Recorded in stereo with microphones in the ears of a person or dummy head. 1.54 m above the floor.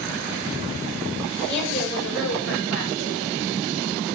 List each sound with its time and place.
1.4 s a woman speaking: 60° left (ahead or behind), 5 m; by 3.3 s 65° left (ahead or behind), 6 m